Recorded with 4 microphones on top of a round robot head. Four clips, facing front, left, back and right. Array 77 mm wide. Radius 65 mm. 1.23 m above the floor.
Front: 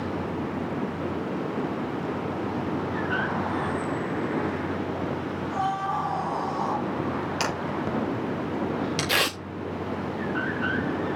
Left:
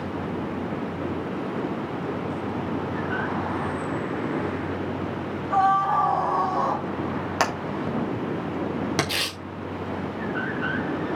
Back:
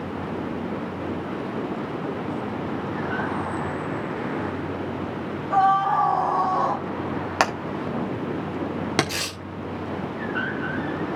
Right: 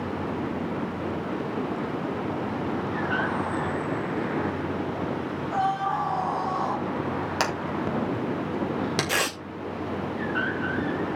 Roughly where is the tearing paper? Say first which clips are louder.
Right 4 dB, front 6 dB; ahead right.